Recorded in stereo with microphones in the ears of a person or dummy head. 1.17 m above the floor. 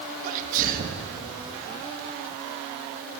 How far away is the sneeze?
About 2 m.